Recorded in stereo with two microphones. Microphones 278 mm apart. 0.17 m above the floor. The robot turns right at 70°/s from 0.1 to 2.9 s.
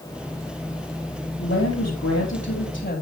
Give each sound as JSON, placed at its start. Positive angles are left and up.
{"t": 1.4, "sound": "a woman speaking", "azimuth_deg": 40, "distance_m": 4.0}